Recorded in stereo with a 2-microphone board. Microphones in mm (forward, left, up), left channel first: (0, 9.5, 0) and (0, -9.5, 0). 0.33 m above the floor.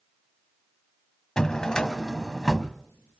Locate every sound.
1.4 s a drawer: 35° left (ahead or behind), 0.9 m